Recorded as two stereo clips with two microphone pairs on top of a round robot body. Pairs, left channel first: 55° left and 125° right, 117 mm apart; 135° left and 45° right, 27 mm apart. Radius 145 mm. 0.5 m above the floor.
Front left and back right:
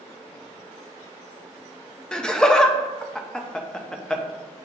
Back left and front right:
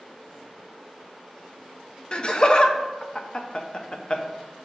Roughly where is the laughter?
Behind left.